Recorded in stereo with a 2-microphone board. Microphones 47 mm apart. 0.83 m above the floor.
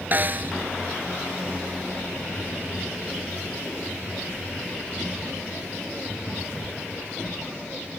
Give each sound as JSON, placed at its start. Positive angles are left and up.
{"t": 0.1, "sound": "a snare drum", "side_deg": -40}